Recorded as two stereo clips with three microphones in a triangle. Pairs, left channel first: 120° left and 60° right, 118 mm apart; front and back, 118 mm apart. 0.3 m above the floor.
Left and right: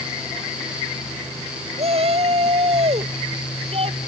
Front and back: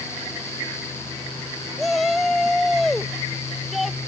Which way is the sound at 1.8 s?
90° right.